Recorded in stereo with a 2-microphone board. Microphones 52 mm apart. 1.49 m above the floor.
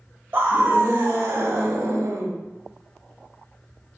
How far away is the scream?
About 1.4 m.